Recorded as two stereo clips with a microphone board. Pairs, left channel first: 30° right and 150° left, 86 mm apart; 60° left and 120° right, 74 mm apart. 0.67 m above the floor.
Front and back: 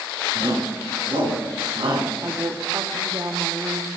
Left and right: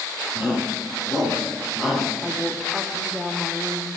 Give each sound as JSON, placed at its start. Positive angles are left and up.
{"t": 0.3, "sound": "a shout", "azimuth_deg": 160, "distance_m": 7.5}
{"t": 2.2, "sound": "a woman speaking", "azimuth_deg": 160, "distance_m": 1.5}